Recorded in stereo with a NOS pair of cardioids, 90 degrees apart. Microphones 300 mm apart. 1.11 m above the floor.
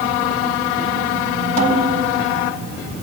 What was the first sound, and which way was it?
A snare drum, 55° right.